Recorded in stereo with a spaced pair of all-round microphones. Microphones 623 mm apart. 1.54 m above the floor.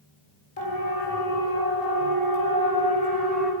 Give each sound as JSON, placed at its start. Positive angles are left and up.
{"t": 0.6, "sound": "a siren", "side_deg": 60, "distance_m": 4.5}